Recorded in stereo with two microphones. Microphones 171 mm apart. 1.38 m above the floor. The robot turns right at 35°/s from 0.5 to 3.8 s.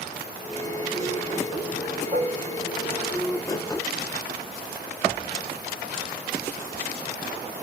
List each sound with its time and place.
2.1 s dishes clattering: 50° right (ahead or behind), 1.4 m; by 2.4 s 40° right (ahead or behind), 1.4 m